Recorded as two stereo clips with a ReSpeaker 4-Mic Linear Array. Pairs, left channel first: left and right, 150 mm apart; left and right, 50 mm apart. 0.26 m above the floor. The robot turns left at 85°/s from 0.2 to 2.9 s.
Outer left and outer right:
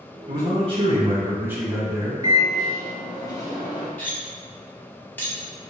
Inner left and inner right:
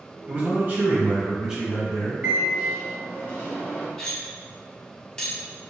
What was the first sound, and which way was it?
A man speaking, 50° right.